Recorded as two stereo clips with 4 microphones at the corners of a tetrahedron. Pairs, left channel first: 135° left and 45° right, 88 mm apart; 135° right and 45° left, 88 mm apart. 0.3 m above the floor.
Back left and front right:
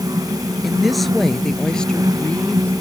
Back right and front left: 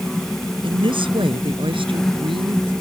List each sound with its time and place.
0.6 s a woman speaking: 40° left; by 2.7 s 60° left